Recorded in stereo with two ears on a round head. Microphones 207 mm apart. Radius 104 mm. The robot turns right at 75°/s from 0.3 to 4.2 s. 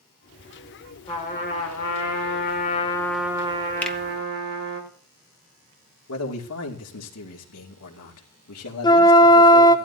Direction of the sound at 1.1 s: 25° left.